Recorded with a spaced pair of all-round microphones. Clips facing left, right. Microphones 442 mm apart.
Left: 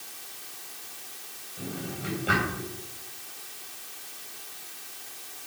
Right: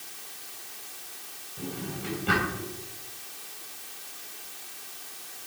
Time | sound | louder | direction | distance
1.6 | a drawer | even | 15° right (ahead or behind) | 3.5 m